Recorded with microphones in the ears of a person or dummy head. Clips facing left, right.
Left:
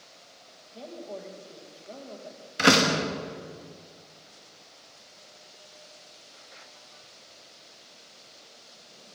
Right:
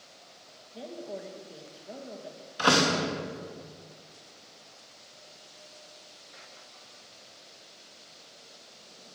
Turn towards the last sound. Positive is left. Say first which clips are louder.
# left 3 dB
turn(degrees=30)  # may be behind; listen again after turning